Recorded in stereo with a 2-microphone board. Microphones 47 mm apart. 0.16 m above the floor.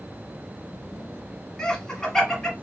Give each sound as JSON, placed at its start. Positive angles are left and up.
{"t": 1.6, "sound": "laughter", "side_deg": 10, "distance_m": 1.1}